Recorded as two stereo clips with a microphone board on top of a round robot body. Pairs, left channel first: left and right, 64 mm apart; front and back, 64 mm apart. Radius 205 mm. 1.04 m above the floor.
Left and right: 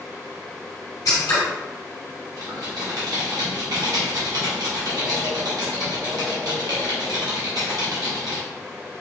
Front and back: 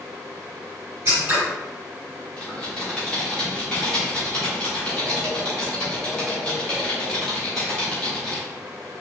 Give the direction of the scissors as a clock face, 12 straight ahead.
8 o'clock.